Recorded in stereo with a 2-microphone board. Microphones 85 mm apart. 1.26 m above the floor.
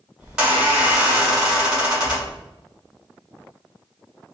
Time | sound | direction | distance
0.2 | a squeak | 10° right (ahead or behind) | 1.9 m